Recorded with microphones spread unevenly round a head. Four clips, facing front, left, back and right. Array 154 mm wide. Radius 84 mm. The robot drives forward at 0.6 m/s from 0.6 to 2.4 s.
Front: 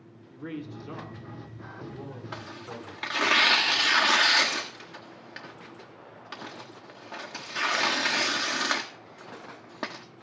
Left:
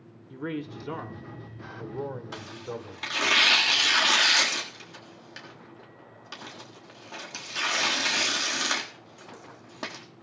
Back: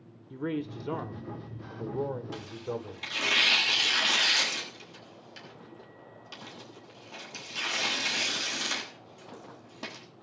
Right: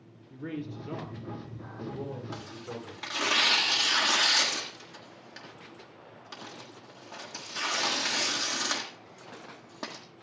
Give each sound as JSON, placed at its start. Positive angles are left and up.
{"t": 0.3, "sound": "a man speaking", "azimuth_deg": 160, "distance_m": 1.0}
{"t": 2.3, "sound": "tearing paper", "azimuth_deg": 15, "distance_m": 1.5}